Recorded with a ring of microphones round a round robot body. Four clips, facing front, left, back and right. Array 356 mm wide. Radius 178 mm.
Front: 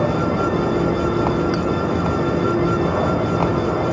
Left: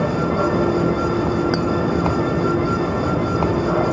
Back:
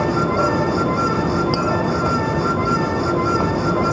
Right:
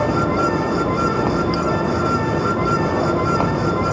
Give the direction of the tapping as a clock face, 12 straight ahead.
8 o'clock.